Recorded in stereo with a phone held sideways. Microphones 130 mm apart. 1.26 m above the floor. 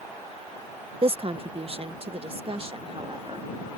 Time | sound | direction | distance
1.0 | a woman speaking | 45° right (ahead or behind) | ?